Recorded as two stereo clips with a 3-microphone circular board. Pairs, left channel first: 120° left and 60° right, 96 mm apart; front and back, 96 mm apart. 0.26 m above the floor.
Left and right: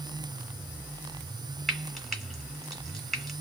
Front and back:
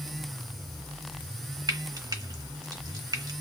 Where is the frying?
150° right, 1.3 m.